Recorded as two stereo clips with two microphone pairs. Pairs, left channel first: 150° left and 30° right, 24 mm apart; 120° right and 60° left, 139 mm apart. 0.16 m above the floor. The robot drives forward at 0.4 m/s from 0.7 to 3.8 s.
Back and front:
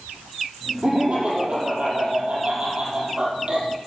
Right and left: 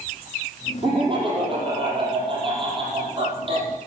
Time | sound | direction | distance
0.8 | laughter | 10° left | 6 m